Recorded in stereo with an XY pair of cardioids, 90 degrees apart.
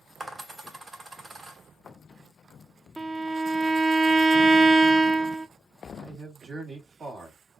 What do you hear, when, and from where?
0.2 s a dropped coin: 30° right, 1.8 m
3.0 s a violin: 25° right, 0.6 m
5.9 s a man speaking: 55° right, 1.9 m